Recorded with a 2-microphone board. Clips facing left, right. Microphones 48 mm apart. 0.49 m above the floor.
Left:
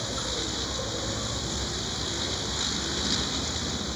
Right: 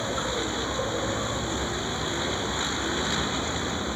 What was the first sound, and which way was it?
A vehicle, 25° right (ahead or behind).